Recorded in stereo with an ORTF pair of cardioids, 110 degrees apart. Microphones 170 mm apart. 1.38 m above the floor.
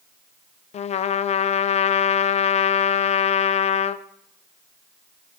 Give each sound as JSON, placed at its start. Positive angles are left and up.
{"t": 0.7, "sound": "a trumpet", "azimuth_deg": 40, "distance_m": 0.5}